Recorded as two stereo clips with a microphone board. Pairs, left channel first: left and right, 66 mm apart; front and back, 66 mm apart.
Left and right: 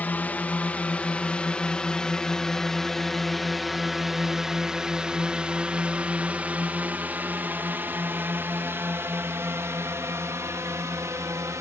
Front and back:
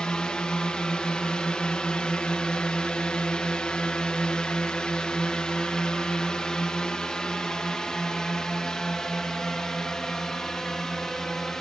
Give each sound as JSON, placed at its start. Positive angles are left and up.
{"t": 0.0, "sound": "a drone", "azimuth_deg": 60}